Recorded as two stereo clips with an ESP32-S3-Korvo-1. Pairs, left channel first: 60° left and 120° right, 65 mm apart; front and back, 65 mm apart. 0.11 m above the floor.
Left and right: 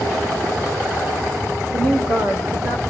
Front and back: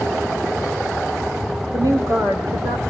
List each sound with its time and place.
1.7 s a woman speaking: 130° right, 5 m; by 2.8 s 150° right, 4 m